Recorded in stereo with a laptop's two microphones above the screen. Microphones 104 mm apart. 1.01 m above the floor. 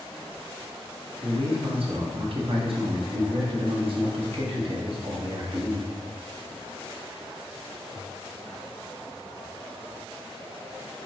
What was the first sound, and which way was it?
A man speaking, 60° right (ahead or behind).